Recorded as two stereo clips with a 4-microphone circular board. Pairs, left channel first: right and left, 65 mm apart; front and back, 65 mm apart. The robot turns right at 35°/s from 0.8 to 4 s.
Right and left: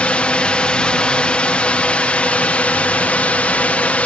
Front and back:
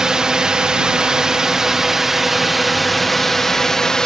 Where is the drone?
120° right; by 4.1 s 65° right.